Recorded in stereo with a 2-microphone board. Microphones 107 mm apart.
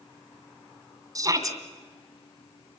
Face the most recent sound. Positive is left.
turn(degrees=-35)  # may be behind; listen again after turning